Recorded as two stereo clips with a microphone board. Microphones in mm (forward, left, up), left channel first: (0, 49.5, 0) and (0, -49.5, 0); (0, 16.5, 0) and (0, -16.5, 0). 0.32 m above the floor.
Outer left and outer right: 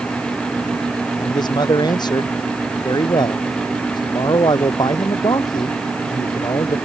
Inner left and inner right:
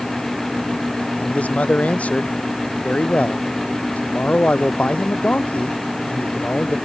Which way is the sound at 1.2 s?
45° left (ahead or behind).